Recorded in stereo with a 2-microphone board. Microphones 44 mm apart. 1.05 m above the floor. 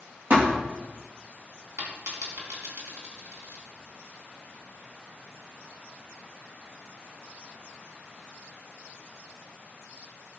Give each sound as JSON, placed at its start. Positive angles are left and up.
{"t": 0.3, "sound": "a thud", "side_deg": -50, "distance_m": 4.0}
{"t": 1.8, "sound": "a dropped coin", "side_deg": -85, "distance_m": 4.5}